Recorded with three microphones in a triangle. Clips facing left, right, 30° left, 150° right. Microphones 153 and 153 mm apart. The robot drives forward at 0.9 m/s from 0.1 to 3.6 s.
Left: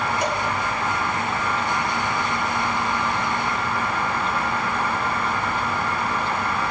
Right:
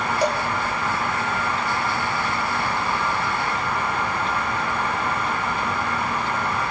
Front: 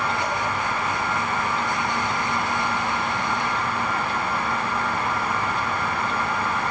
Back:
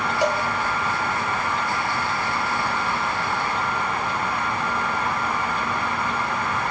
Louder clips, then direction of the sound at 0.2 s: Right 7 dB, back 5 dB; 150° right.